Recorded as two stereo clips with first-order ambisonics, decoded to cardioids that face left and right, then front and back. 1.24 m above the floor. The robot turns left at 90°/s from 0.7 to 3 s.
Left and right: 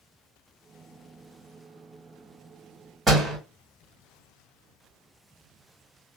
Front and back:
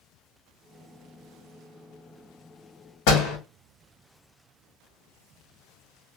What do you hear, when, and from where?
3.1 s a door slam: 10° right, 1.4 m